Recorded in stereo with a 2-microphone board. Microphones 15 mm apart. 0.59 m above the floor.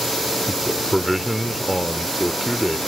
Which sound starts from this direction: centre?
A man speaking, at 0.5 s.